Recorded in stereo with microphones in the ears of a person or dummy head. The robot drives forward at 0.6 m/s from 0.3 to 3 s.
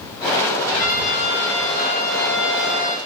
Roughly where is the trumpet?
Left.